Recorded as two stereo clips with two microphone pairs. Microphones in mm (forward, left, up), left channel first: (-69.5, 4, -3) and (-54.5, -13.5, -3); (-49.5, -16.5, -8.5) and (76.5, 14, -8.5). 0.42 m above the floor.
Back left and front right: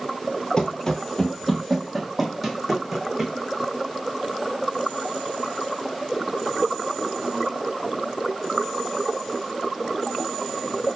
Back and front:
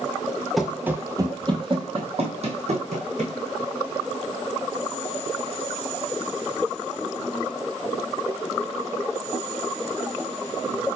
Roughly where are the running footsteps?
Left.